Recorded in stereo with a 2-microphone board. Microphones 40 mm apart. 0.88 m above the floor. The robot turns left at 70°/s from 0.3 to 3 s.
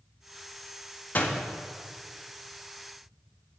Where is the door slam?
50° left (ahead or behind), 1.1 m; by 1.4 s 65° left (ahead or behind), 1.1 m.